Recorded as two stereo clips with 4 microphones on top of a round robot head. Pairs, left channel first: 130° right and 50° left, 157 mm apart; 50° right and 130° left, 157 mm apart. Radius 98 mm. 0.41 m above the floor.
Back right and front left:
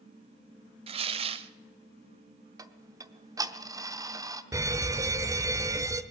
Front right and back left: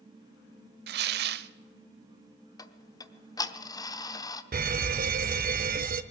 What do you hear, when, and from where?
0.9 s tearing paper: 105° left, 0.5 m
2.6 s ticking: straight ahead, 0.8 m
4.5 s an alarm: 115° left, 0.8 m